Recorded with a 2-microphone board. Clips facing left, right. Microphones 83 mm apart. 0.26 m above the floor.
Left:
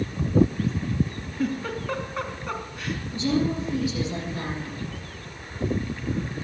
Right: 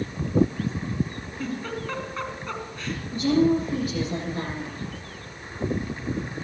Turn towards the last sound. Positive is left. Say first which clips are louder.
# right 5 dB
turn(degrees=-45)  # may be behind; listen again after turning